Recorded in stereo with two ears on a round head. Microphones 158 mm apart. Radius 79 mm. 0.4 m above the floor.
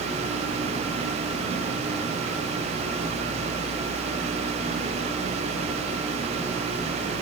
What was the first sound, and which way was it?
Only background noise.